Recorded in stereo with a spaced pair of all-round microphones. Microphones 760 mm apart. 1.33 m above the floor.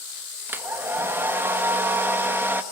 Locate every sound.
0.5 s a hair dryer: 5° right (ahead or behind), 1.8 m